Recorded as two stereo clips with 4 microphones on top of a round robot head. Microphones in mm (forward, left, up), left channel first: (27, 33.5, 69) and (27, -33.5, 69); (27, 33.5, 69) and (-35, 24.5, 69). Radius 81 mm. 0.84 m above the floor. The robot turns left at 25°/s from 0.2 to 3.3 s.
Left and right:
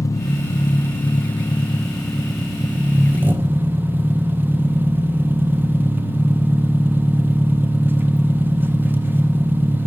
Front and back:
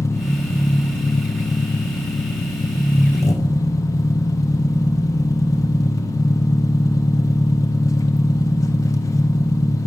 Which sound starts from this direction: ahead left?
An engine running, at 0.0 s.